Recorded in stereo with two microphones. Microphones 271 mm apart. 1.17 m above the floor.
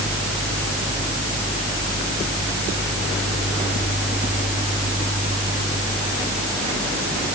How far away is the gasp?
No gasp in this recording.